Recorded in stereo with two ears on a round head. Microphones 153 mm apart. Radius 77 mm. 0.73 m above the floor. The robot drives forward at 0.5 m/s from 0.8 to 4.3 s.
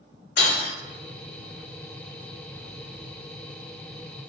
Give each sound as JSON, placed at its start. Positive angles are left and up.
{"t": 0.4, "sound": "breaking glass", "side_deg": 75, "distance_m": 1.2}